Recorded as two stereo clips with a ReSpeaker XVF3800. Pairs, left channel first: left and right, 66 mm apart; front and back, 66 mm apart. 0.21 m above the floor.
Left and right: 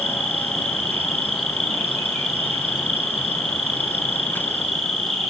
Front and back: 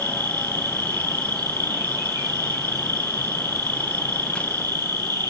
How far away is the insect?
About 4.5 m.